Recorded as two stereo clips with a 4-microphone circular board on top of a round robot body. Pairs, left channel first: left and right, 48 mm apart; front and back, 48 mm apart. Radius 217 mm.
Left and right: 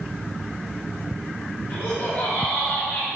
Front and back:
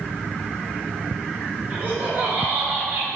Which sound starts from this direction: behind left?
Laughter, at 1.7 s.